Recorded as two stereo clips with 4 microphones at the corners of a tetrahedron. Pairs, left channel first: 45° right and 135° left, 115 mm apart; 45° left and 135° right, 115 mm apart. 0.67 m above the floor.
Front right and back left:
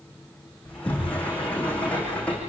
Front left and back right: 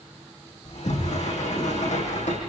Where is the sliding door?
35° left, 8 m.